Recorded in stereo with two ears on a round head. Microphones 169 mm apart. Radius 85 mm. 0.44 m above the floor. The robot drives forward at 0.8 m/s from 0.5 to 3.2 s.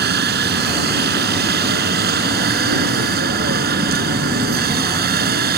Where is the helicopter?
60° right (ahead or behind); by 5.6 s 55° right (ahead or behind).